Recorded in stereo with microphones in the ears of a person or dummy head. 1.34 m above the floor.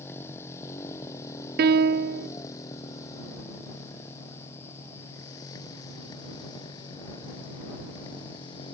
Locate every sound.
0.0 s a motorcycle: 15° left (ahead or behind); by 8.7 s 25° left (ahead or behind)
1.6 s a piano: 45° right (ahead or behind)